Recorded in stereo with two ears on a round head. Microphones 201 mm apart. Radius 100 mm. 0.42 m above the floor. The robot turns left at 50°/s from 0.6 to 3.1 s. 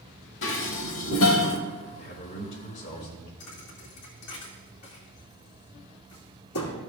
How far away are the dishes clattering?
About 1.0 m.